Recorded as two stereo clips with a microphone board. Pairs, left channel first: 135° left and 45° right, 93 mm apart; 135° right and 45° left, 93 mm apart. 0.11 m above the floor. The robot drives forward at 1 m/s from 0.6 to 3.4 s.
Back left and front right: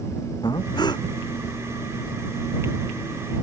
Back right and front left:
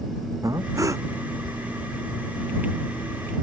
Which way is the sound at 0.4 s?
95° left.